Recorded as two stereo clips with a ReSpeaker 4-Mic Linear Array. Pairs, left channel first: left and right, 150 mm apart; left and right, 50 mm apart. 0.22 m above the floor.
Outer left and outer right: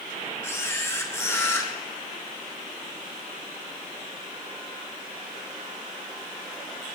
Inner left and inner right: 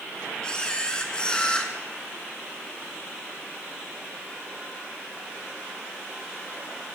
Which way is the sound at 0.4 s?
20° left (ahead or behind).